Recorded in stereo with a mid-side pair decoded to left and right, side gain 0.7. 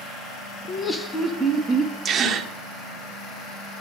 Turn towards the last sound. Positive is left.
turn(degrees=-35)